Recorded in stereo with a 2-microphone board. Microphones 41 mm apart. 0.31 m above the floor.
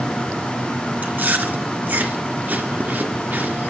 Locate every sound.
1.0 s chewing: 45° right (ahead or behind), 3 m